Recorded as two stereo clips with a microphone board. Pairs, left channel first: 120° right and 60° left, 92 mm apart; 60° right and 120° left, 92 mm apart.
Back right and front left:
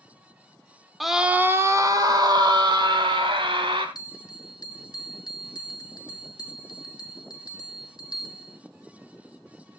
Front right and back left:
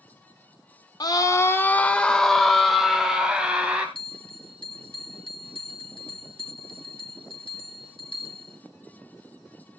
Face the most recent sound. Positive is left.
turn(degrees=-80)